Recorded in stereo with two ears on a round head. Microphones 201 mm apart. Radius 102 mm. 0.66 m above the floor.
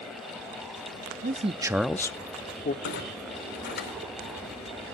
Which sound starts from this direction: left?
A clunk, at 2.8 s.